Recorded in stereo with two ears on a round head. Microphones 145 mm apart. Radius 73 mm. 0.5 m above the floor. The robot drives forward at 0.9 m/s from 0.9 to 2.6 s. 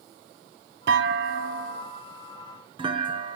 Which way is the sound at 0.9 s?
80° right.